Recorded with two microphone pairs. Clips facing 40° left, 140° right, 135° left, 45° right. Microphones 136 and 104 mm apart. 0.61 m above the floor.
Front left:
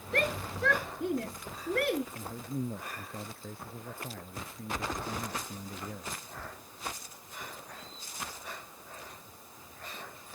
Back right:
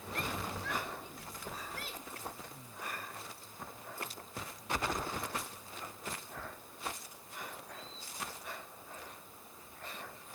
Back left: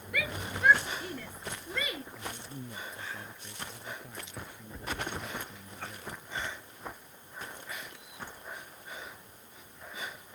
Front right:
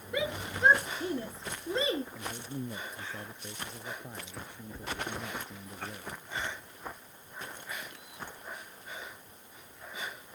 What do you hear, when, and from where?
0.1 s a shout: 20° left; by 2.0 s 15° left
2.1 s a man speaking: 25° left